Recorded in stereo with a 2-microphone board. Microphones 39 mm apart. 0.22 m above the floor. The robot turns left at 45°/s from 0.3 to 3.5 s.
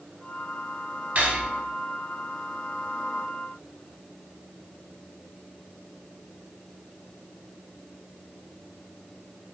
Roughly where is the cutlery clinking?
Right.